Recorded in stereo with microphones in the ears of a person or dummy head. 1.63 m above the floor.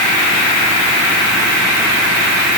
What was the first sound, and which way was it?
Only background noise.